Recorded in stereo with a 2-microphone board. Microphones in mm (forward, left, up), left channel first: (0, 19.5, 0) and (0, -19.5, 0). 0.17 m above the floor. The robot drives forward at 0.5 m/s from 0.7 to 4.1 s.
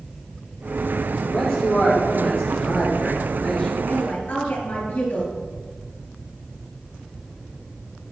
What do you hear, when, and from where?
1.3 s a man speaking: 10° left (ahead or behind), 4 m
3.9 s a woman speaking: 45° left (ahead or behind), 3 m